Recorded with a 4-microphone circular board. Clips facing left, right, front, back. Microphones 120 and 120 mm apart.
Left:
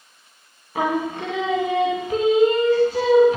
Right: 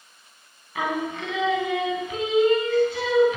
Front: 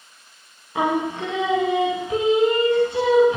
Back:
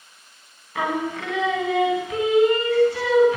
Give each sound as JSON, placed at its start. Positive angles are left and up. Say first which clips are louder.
{"t": 0.8, "sound": "singing", "louder": "left 4 dB, front 3 dB", "azimuth_deg": 55, "distance_m": 0.7}